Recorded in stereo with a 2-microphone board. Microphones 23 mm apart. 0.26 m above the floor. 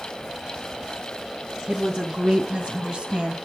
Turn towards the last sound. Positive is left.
turn(degrees=-40)  # may be behind; listen again after turning